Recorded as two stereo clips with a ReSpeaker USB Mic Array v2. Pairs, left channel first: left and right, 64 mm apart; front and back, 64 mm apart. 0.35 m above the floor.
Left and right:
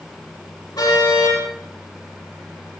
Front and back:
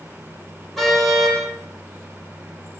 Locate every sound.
0.8 s a car horn: 85° left, 8 m